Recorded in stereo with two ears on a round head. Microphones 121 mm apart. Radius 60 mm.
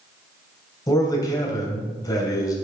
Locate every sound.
0.9 s a man speaking: 30° left (ahead or behind), 2.5 m